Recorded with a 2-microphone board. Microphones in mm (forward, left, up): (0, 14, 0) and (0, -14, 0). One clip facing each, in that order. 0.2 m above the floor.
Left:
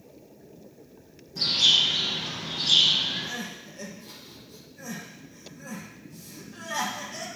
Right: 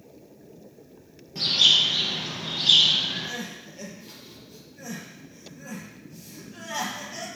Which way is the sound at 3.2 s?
10° right (ahead or behind).